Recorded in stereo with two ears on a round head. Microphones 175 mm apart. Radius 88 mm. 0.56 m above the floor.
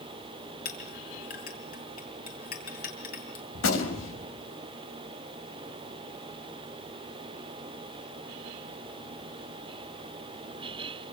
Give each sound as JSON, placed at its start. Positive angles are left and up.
{"t": 0.7, "sound": "a clink", "side_deg": 50, "distance_m": 6.0}
{"t": 3.5, "sound": "a gunshot", "side_deg": 70, "distance_m": 4.0}